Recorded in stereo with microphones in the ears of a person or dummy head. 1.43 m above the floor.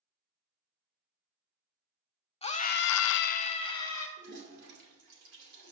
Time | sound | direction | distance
2.4 | a scream | 30° left (ahead or behind) | 0.9 m
4.2 | a toilet flushing | 60° right (ahead or behind) | 3.5 m